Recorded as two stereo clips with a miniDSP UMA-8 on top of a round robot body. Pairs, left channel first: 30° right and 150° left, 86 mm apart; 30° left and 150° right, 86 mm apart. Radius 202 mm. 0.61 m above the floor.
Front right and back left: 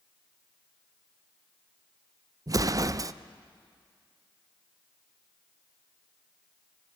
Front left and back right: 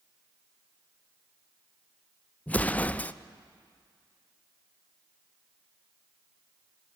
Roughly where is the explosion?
Left.